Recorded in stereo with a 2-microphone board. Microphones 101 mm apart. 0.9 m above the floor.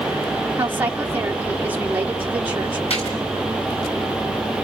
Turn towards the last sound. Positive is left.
turn(degrees=85)